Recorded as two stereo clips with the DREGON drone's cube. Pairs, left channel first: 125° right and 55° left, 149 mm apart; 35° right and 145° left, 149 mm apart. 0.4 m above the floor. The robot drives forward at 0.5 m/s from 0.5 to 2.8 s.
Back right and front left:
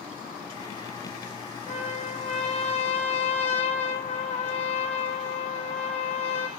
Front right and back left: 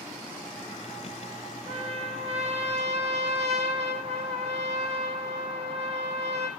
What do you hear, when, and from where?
1.7 s a trumpet: 165° right, 1.6 m